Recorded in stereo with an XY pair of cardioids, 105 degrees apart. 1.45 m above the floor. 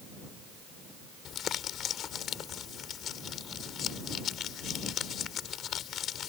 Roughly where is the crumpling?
Ahead left.